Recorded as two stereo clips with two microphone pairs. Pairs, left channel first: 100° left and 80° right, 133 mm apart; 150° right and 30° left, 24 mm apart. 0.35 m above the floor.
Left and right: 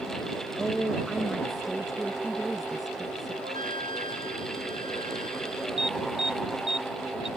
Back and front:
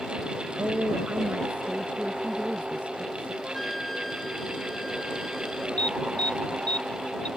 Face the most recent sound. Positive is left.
turn(degrees=-120)